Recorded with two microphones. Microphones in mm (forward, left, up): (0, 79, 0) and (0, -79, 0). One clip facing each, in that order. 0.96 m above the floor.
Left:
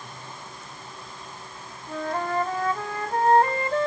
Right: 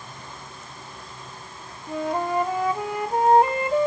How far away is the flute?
About 0.8 m.